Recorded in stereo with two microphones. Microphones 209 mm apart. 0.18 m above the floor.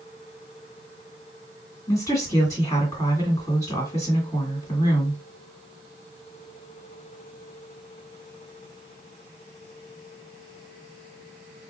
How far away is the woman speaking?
About 2.0 m.